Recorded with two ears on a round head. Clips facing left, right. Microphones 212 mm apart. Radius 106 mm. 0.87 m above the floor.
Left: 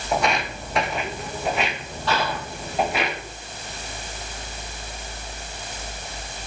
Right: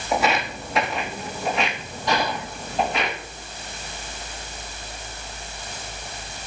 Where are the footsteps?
5° right (ahead or behind), 1.7 m; by 3.1 s 5° left (ahead or behind), 4 m.